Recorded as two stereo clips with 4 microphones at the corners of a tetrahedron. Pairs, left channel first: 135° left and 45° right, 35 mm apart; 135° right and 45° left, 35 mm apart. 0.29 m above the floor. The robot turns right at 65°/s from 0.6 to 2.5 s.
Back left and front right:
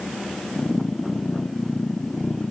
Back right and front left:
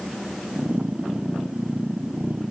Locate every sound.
Only background noise.